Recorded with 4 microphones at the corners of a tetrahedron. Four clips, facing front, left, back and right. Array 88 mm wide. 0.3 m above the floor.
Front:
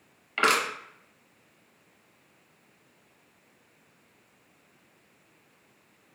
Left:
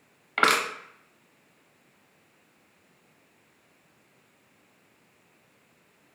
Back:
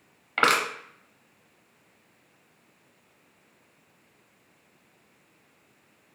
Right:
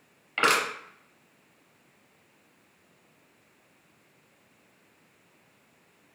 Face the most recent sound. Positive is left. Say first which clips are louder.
# left 2 dB, back 2 dB
turn(degrees=135)